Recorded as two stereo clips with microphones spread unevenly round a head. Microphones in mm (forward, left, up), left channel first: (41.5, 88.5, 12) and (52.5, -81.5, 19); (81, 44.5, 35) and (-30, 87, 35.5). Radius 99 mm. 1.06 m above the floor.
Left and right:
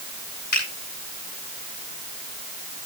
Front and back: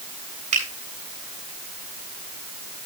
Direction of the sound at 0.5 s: 145° left.